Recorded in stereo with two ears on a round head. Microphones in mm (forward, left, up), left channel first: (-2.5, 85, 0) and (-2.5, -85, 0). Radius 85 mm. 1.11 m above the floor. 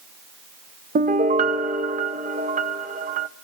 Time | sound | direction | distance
0.9 | a piano | 40° right (ahead or behind) | 0.5 m